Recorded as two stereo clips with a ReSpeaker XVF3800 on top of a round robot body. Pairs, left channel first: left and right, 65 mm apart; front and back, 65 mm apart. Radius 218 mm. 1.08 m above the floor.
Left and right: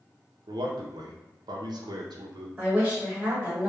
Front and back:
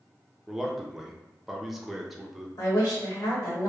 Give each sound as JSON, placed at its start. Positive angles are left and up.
{"t": 0.5, "sound": "a man speaking", "azimuth_deg": -90, "distance_m": 0.5}
{"t": 2.6, "sound": "a woman speaking", "azimuth_deg": -15, "distance_m": 1.4}